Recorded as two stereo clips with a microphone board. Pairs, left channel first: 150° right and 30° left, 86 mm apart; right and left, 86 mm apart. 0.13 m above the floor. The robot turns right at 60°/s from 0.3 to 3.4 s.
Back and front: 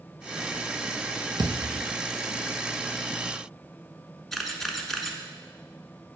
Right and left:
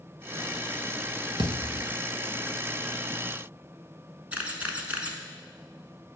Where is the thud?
70° left, 1.4 m; by 1.9 s 100° left, 1.4 m.